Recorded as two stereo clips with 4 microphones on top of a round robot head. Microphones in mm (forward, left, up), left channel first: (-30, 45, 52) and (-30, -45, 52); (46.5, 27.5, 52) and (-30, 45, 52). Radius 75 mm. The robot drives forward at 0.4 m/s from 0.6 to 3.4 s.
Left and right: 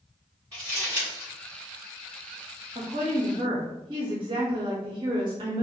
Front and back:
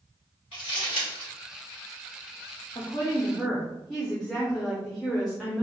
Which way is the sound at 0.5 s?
20° right.